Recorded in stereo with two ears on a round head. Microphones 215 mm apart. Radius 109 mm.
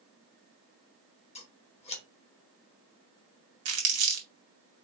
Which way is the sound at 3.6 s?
65° right (ahead or behind).